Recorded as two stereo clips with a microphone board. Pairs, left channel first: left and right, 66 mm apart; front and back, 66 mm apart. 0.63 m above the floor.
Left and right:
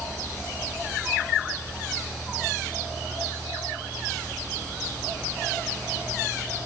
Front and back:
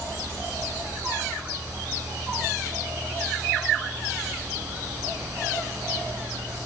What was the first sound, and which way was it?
Only background noise.